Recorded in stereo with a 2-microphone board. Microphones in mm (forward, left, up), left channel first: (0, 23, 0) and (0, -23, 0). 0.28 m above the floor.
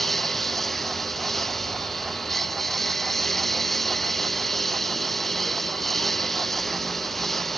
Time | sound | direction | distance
0.0 | a lawn mower | 5° left (ahead or behind) | ?